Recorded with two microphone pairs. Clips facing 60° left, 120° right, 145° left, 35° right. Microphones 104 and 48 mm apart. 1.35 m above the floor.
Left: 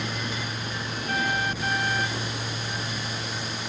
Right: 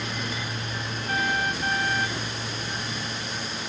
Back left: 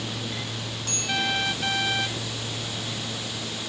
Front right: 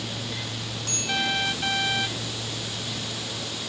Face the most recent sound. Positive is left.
No sound to turn to.